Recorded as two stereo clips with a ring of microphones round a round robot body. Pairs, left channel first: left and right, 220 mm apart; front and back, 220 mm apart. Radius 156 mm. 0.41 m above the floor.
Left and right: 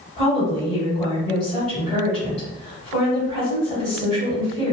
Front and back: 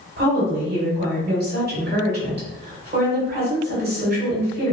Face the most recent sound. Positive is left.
turn(degrees=150)